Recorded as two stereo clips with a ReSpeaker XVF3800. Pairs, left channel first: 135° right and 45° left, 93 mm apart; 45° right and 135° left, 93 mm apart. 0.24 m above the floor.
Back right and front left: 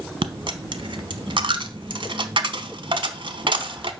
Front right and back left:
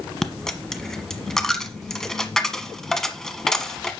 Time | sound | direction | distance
0.2 | a dropped coin | 40° left | 1.0 m